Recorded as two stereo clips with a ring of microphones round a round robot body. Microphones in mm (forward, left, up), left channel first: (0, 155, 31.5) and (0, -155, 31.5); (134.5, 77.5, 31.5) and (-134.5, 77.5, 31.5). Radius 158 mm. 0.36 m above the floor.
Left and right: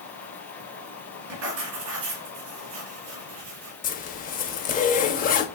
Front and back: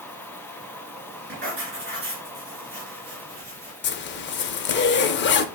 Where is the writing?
120° right, 3 m.